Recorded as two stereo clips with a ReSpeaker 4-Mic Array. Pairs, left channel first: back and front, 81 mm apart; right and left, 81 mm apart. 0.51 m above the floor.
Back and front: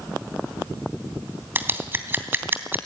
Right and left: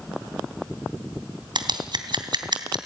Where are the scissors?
65° left, 2.5 m.